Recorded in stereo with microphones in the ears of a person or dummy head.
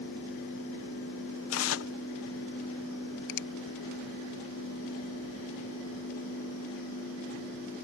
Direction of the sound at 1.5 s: 85° left.